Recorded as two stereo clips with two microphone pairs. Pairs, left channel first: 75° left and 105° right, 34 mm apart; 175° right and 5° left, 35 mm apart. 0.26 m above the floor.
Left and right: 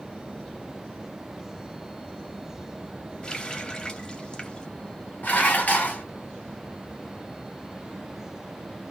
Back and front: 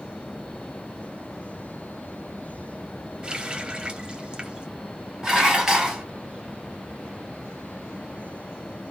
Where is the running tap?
40° left, 0.8 m.